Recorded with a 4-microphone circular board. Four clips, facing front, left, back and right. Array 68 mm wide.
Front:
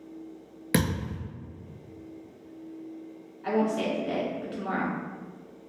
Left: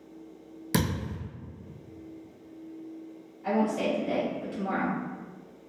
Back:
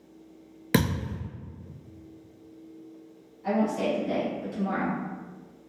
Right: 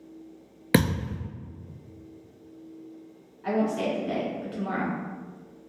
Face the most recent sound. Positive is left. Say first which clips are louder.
# right 1 dB, even
turn(degrees=-25)